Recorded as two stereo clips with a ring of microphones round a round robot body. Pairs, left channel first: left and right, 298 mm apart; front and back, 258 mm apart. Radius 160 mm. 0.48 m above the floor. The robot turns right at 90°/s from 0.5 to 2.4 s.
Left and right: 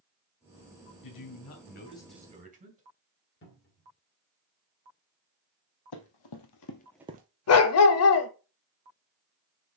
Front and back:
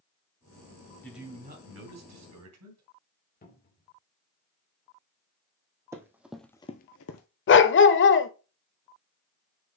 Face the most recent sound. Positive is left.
turn(degrees=45)